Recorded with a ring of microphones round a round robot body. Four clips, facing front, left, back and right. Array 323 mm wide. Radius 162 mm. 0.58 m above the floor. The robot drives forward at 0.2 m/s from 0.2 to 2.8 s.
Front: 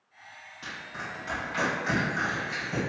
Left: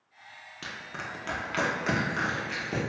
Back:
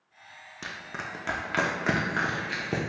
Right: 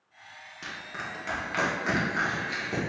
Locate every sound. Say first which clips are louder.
0.6 s crushing: right 1 dB, back 1 dB; 160° left, 0.5 m; by 2.8 s 170° left, 0.9 m